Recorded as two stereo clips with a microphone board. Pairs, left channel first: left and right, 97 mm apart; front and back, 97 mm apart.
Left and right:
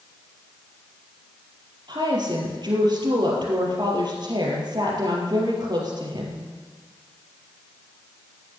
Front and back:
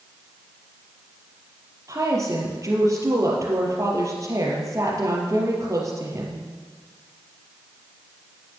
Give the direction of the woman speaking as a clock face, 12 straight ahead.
4 o'clock.